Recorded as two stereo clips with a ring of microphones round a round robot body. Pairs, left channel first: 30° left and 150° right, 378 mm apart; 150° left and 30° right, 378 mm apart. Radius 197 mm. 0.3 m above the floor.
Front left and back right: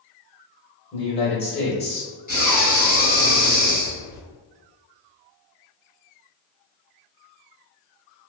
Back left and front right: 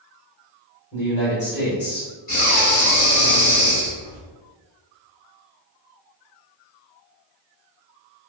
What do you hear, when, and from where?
0.9 s a man speaking: 100° left, 1.3 m
2.3 s breathing: 85° left, 1.9 m